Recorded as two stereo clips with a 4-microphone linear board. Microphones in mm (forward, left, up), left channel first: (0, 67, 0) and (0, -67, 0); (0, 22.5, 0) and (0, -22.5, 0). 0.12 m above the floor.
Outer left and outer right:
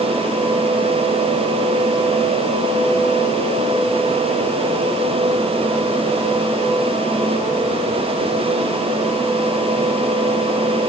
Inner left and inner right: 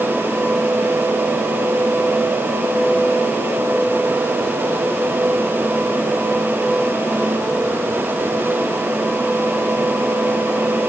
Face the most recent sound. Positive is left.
No sound to turn to.